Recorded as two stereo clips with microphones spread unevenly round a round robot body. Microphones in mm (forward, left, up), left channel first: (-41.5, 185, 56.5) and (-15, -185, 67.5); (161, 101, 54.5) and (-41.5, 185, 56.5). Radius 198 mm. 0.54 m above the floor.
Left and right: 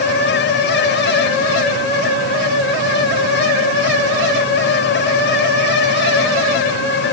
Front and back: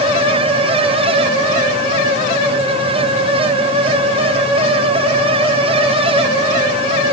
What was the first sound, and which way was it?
Only background noise.